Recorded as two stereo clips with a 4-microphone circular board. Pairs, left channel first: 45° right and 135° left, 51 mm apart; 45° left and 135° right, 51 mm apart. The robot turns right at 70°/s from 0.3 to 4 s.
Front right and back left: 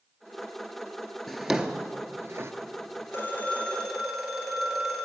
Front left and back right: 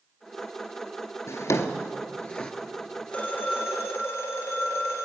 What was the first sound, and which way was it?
A drawer, 40° left.